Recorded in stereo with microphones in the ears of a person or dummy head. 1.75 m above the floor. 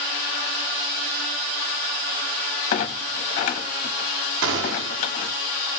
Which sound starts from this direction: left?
A clunk, at 2.7 s.